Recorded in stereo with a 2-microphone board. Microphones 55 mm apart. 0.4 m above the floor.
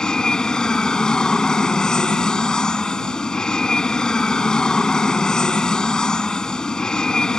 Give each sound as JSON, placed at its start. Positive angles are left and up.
{"t": 0.0, "sound": "an aircraft", "side_deg": 15}